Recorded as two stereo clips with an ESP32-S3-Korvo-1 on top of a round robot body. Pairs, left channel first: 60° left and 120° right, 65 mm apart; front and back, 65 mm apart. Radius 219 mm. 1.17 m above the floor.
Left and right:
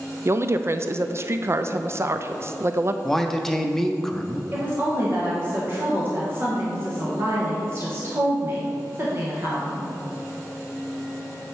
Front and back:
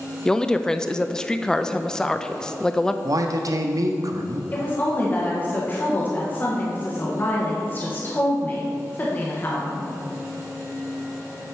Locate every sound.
0.2 s a woman speaking: 80° right, 0.6 m
3.0 s a man speaking: 145° left, 0.7 m
4.5 s a woman speaking: 65° right, 1.2 m